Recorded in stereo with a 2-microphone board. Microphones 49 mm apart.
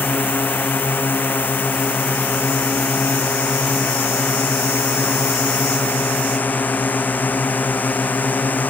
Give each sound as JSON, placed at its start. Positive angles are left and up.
{"t": 0.0, "sound": "a drone", "side_deg": 45}